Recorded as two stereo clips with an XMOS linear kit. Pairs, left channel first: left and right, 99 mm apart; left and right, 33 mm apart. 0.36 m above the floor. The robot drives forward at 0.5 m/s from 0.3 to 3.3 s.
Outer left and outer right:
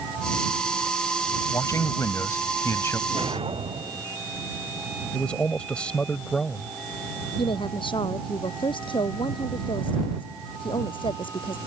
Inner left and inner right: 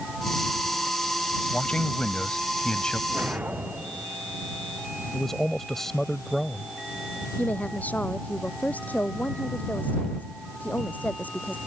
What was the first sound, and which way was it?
A man speaking, 35° left (ahead or behind).